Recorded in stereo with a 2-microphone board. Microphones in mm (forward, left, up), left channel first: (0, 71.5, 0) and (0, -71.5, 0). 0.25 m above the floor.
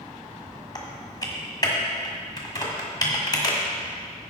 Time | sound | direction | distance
0.8 | typing on a keyboard | 30° left (ahead or behind) | 1.6 m